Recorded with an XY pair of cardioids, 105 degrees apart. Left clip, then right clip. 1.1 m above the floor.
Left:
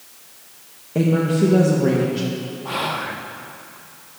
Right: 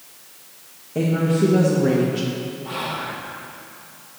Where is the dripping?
I don't hear dripping.